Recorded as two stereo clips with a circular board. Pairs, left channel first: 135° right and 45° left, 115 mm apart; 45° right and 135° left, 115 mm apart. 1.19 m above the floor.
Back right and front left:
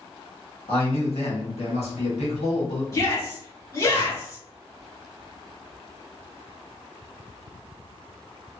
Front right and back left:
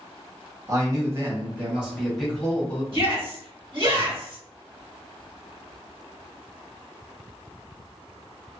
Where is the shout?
170° left, 1.6 m.